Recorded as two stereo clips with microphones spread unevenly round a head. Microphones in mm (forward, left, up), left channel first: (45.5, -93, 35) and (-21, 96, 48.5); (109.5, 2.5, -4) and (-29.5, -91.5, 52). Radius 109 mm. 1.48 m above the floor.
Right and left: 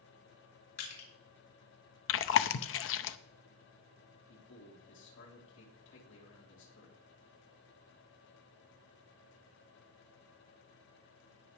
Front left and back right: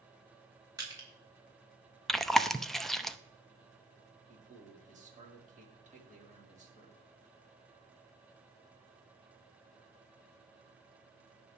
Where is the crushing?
75° right, 5.5 m.